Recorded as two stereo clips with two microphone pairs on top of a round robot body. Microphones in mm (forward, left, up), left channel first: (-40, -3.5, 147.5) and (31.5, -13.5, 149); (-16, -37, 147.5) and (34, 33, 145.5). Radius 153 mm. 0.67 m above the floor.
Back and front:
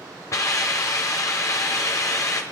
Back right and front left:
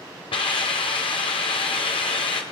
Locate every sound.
0.3 s a hiss: 140° right, 1.0 m